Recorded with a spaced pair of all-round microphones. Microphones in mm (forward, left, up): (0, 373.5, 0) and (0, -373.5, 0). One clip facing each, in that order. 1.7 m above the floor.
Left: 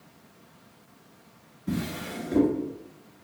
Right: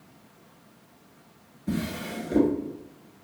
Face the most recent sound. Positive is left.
turn(degrees=5)  # may be behind; listen again after turning